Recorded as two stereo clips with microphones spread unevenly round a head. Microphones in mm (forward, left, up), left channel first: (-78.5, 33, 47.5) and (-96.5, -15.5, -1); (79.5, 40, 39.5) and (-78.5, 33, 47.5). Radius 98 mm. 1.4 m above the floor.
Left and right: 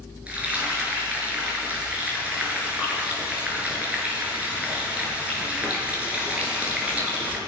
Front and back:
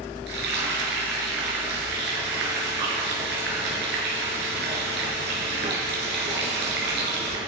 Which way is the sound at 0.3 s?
175° left.